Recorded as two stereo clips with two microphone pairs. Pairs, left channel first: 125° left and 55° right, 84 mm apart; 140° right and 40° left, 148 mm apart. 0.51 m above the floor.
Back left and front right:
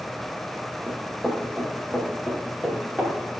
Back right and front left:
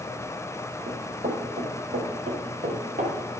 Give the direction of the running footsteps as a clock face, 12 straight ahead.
11 o'clock.